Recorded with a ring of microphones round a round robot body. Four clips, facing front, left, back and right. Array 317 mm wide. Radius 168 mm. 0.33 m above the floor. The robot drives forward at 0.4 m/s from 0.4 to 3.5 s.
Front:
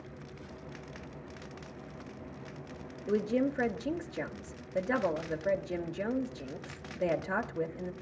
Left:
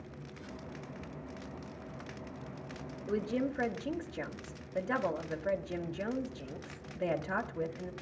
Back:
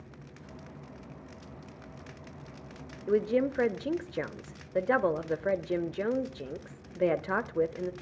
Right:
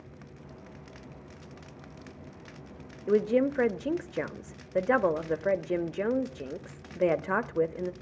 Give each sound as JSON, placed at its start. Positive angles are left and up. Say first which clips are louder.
{"t": 3.1, "sound": "a woman speaking", "louder": "right 9 dB, back 3 dB", "azimuth_deg": -110, "distance_m": 1.3}